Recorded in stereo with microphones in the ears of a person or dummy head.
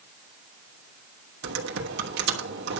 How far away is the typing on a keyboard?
About 2.5 m.